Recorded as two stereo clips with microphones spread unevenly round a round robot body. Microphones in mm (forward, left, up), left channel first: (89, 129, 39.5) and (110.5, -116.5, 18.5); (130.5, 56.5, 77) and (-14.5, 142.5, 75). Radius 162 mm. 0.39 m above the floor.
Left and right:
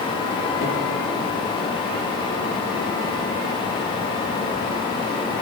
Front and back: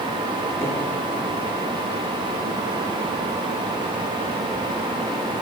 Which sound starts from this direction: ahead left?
A cupboard door, at 0.6 s.